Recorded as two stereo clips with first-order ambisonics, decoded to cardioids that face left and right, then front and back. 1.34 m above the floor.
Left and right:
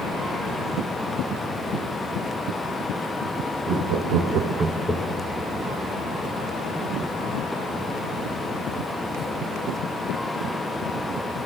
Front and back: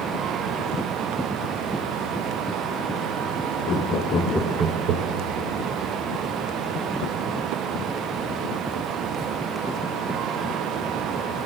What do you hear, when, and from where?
3.7 s laughter: 50° right, 1.4 m; by 5.3 s 160° left, 1.2 m